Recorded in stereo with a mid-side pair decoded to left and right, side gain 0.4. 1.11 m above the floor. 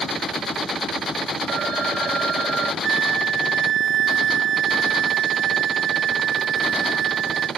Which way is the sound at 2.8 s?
60° right.